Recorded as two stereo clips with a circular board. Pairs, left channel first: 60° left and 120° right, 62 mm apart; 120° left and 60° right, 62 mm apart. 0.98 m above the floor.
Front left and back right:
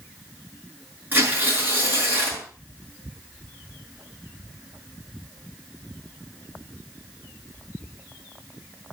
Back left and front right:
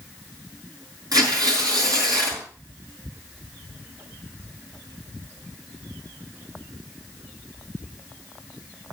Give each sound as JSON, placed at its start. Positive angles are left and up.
{"t": 1.1, "sound": "tearing paper", "azimuth_deg": -65, "distance_m": 6.5}